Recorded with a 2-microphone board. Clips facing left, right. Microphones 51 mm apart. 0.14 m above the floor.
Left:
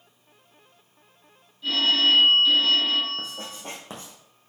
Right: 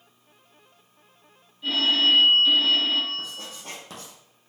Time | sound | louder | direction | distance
1.6 | a phone ringing | even | 15° right (ahead or behind) | 3 m
3.2 | writing | left 1 dB | 30° left (ahead or behind) | 3 m